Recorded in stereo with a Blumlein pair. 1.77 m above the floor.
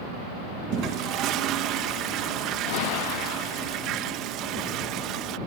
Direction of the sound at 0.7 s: 35° right.